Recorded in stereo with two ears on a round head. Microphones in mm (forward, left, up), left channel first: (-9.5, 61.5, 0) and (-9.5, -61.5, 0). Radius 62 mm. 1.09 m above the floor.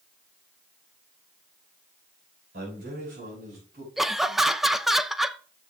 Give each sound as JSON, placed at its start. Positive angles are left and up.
{"t": 2.5, "sound": "a man speaking", "side_deg": -75, "distance_m": 5.5}
{"t": 4.0, "sound": "laughter", "side_deg": 0, "distance_m": 0.6}